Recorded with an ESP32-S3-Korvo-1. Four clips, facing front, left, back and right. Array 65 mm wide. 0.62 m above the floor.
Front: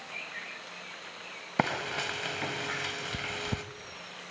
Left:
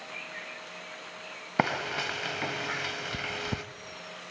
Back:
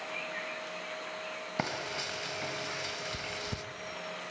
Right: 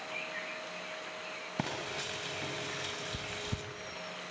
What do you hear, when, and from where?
1.6 s frying: 65° left, 1.4 m